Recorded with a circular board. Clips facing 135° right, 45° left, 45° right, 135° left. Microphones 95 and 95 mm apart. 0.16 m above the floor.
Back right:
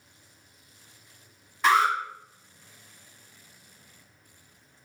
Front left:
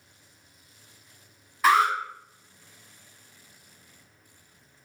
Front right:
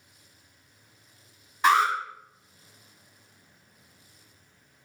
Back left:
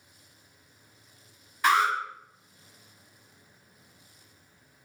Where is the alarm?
35° right, 1.8 m.